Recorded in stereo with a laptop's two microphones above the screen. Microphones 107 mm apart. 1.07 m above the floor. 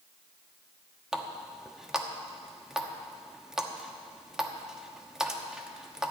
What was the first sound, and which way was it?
A running tap, 5° right (ahead or behind).